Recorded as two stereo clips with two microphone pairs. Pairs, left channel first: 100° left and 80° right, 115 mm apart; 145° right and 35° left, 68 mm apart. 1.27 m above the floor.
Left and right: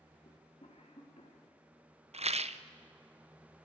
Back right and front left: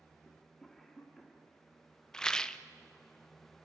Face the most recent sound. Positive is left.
turn(degrees=-65)